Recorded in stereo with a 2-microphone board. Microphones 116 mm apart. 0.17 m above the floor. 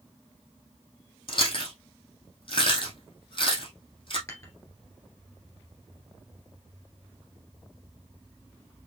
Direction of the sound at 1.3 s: 45° left (ahead or behind).